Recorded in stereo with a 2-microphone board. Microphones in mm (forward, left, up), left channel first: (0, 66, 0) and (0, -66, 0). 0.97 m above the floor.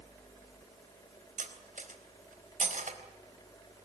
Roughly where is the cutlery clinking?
Right.